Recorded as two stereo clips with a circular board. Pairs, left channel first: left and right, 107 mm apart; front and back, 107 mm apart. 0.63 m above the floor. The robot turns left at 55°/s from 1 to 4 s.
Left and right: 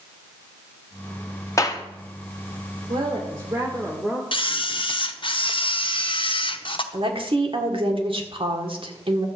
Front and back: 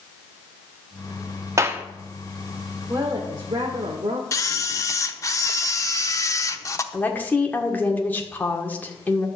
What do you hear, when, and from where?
1.6 s a clap: 135° left, 1.2 m; by 1.8 s 120° left, 1.2 m
2.9 s a woman speaking: 110° right, 1.7 m; by 4.2 s 170° right, 1.7 m
4.3 s a camera shutter: 55° left, 0.8 m
6.9 s a woman speaking: 70° right, 1.7 m